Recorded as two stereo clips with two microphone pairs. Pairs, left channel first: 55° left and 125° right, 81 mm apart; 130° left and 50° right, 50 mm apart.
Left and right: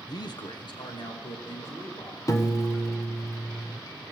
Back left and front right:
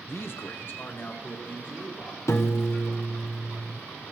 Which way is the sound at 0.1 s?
95° left.